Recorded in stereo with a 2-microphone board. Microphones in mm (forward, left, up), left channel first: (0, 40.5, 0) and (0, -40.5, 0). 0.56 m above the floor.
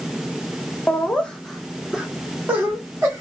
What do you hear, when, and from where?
0.9 s laughter: 20° left (ahead or behind), 0.7 m; by 3.2 s 30° right (ahead or behind), 1.1 m